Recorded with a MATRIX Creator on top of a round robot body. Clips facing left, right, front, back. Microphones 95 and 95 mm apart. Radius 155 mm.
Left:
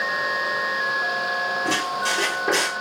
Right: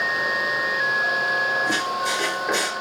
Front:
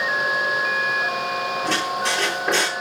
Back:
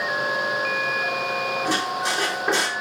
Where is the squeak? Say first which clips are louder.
Even, front 1 dB; 105° left, 5 m.